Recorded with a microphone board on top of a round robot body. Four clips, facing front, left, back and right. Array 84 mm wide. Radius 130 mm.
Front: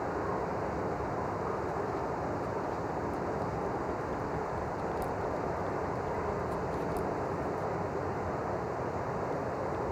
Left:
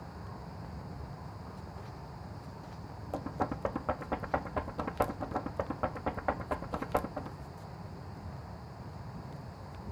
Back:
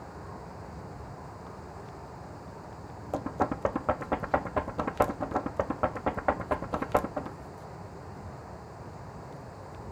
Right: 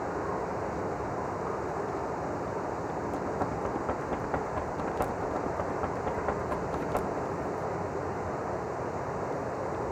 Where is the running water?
55° right.